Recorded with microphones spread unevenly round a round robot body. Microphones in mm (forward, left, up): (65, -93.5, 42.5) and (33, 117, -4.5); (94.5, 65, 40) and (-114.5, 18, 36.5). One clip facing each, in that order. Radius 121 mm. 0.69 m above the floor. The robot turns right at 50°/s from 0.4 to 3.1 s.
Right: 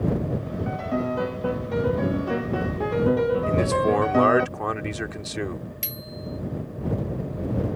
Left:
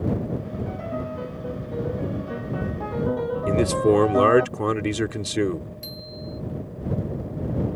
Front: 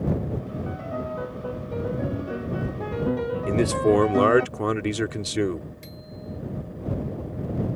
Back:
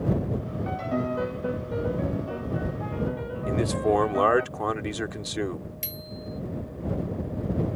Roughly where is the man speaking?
Ahead left.